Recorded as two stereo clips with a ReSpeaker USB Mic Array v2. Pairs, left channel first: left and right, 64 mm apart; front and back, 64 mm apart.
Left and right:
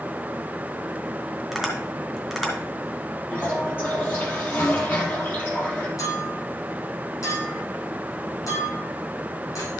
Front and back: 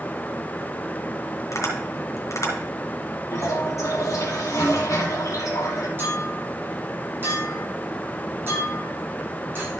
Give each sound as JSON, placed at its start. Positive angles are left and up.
{"t": 1.5, "sound": "tapping", "azimuth_deg": 0, "distance_m": 2.5}
{"t": 3.3, "sound": "a toilet flushing", "azimuth_deg": 30, "distance_m": 3.0}
{"t": 6.0, "sound": "a clink", "azimuth_deg": 125, "distance_m": 4.5}